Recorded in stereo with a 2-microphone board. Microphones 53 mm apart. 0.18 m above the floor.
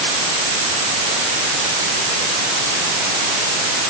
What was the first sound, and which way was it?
Only background noise.